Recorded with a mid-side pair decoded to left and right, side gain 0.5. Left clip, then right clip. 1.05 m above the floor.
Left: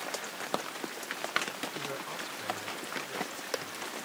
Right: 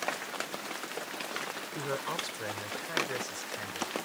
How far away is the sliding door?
No sliding door in this recording.